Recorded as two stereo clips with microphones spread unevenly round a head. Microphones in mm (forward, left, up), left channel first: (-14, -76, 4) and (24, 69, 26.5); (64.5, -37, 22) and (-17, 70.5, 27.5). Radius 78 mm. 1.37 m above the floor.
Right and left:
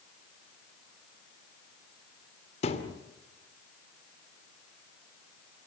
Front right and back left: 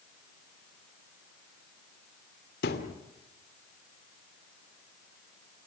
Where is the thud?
55° right, 2.5 m.